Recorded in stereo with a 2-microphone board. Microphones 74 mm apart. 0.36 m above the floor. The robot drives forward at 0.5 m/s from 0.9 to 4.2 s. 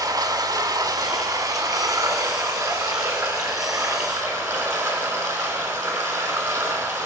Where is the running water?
50° right (ahead or behind), 1.8 m; by 7.1 s 30° right (ahead or behind), 3 m.